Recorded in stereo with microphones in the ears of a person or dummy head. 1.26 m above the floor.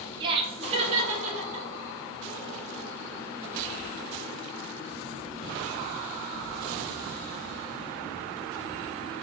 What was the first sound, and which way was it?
Laughter, 20° right (ahead or behind).